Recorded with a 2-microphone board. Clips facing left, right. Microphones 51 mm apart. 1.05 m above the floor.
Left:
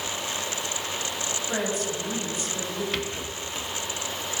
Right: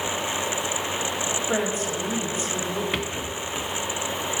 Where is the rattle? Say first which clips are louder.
Right 3 dB; 15° right (ahead or behind), 0.7 m.